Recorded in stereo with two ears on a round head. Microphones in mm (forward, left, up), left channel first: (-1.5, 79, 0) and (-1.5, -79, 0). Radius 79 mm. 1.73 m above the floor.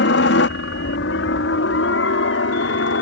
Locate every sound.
0.0 s a helicopter: 70° left (ahead or behind); by 3.0 s 75° left (ahead or behind)